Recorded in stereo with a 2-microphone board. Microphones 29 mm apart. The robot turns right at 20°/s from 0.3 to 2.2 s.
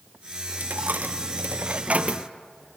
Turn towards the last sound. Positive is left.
turn(degrees=-45)  # may be behind; listen again after turning